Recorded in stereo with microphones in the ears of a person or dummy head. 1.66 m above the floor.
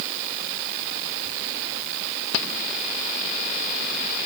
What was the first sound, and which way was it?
Only background noise.